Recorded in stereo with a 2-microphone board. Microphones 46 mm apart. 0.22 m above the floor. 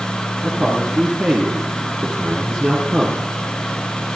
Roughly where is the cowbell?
I don't hear a cowbell.